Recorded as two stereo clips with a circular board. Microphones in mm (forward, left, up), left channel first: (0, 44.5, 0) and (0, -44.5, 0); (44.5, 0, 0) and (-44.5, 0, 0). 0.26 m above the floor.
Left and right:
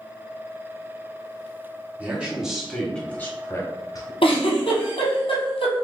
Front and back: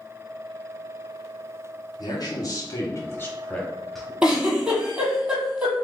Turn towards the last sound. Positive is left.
turn(degrees=105)